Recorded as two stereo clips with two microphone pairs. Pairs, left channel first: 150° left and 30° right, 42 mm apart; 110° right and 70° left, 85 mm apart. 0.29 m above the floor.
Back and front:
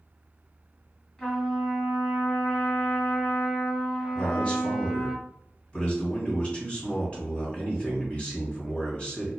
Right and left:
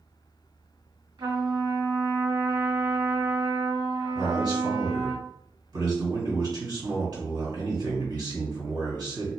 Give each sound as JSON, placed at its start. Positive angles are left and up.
{"t": 1.2, "sound": "a trumpet", "azimuth_deg": 75, "distance_m": 1.9}
{"t": 4.2, "sound": "a man speaking", "azimuth_deg": 90, "distance_m": 2.5}